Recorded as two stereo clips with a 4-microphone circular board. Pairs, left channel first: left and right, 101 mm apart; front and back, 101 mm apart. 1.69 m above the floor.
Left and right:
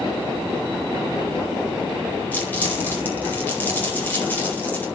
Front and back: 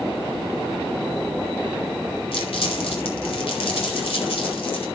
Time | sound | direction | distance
2.3 | crumpling | 20° left | 4.5 m